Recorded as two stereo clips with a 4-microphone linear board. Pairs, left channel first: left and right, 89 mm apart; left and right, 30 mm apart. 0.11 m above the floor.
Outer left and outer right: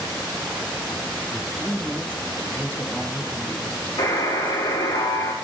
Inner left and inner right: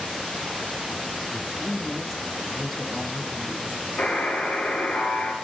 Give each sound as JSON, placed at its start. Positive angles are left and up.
{"t": 1.3, "sound": "a man speaking", "side_deg": -15, "distance_m": 1.2}
{"t": 4.0, "sound": "a buzzer", "side_deg": 70, "distance_m": 4.5}